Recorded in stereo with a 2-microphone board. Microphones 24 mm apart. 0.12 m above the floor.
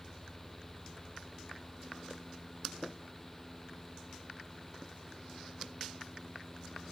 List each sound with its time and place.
Only background noise.